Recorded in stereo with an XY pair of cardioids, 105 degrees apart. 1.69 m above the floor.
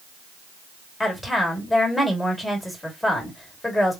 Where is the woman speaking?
10° left, 2 m.